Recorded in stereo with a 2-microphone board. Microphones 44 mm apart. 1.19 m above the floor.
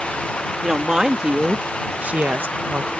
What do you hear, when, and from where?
0.6 s a woman speaking: 15° right (ahead or behind); by 2.9 s 65° right (ahead or behind)